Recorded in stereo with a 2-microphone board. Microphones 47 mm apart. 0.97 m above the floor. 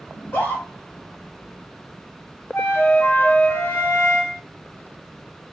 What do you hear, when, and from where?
0.1 s a scream: 65° left (ahead or behind), 1.8 m
2.5 s a flute: 50° left (ahead or behind), 1.1 m